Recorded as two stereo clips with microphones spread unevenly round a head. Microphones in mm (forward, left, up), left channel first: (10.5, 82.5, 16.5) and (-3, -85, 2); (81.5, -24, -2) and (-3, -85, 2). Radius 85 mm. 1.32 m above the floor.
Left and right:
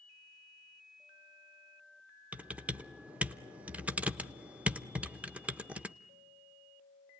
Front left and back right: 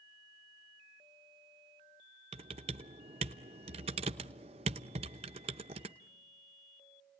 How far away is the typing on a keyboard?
About 0.7 m.